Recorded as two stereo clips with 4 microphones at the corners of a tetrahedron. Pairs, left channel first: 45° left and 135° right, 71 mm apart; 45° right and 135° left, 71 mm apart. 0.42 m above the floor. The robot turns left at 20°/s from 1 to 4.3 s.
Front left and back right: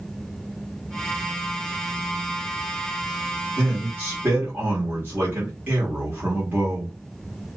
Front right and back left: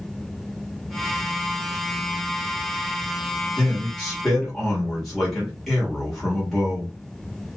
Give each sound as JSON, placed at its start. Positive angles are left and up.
{"t": 3.6, "sound": "a man speaking", "azimuth_deg": -110, "distance_m": 1.2}